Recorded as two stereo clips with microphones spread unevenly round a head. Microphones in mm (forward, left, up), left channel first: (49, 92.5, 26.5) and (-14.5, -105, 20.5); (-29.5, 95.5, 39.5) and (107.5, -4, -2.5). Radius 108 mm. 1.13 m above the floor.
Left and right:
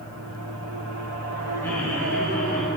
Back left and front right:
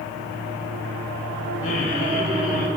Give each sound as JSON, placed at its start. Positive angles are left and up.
{"t": 1.6, "sound": "laughter", "azimuth_deg": 155, "distance_m": 8.5}